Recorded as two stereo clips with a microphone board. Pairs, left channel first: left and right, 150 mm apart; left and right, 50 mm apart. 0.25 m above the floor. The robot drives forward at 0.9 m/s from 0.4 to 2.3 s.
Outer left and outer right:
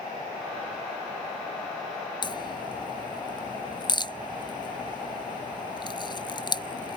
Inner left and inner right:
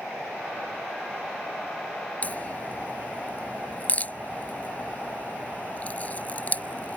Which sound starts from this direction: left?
A crack, at 2.2 s.